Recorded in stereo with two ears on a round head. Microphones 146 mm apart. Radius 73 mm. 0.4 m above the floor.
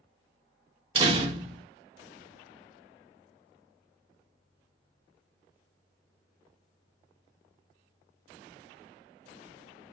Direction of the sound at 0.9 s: 30° right (ahead or behind).